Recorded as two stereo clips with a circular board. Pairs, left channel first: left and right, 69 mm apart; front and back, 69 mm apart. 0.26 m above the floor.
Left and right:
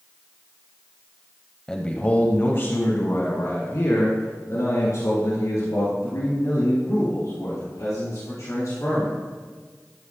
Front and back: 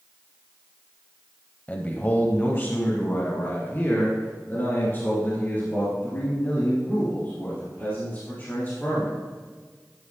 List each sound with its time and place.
1.7 s a man speaking: 25° left, 1.0 m; by 9.1 s 60° left, 6.5 m